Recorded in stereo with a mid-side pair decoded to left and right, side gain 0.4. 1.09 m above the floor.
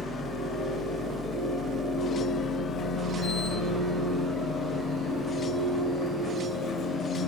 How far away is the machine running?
About 1.7 m.